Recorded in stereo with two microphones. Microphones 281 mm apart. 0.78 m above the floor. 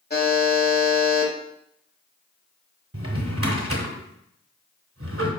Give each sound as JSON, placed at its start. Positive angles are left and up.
{"t": 0.1, "sound": "a buzzer", "side_deg": 35, "distance_m": 1.0}
{"t": 2.9, "sound": "a drawer", "side_deg": -55, "distance_m": 0.8}